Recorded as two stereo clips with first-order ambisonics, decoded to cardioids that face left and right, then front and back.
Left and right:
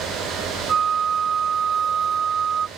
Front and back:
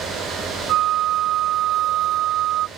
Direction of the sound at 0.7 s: 150° right.